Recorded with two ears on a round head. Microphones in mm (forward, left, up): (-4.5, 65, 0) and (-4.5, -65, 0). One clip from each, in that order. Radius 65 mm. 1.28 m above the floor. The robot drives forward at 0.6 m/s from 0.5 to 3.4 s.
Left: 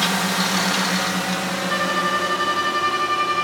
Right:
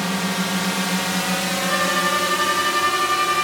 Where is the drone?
20° left (ahead or behind); by 3.4 s 55° right (ahead or behind).